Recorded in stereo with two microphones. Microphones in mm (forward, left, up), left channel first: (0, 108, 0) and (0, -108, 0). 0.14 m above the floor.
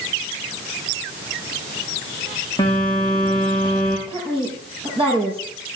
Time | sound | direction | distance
2.6 | a phone buzzing | 20° left (ahead or behind) | 6.5 m
4.1 | a woman speaking | 25° right (ahead or behind) | 5 m